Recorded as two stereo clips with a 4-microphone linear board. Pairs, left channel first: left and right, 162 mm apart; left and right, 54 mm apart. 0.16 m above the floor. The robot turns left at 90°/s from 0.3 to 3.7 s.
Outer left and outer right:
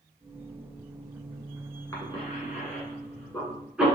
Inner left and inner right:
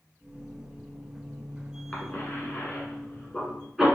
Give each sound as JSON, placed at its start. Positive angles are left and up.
{"t": 1.9, "sound": "a cough", "side_deg": 20, "distance_m": 1.4}